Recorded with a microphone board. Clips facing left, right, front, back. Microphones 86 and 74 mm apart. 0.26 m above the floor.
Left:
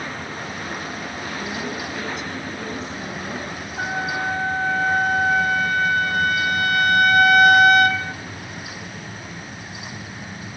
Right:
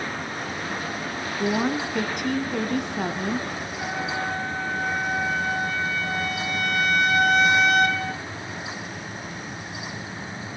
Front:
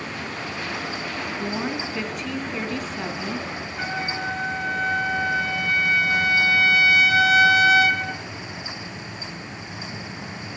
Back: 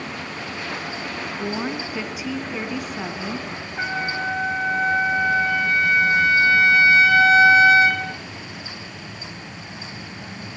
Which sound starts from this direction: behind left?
A trumpet, at 3.8 s.